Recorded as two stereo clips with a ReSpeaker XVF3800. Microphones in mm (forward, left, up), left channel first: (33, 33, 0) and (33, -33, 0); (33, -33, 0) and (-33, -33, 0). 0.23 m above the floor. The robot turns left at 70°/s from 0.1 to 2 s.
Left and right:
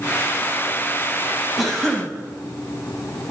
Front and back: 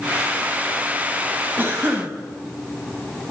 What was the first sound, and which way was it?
A cough, straight behind.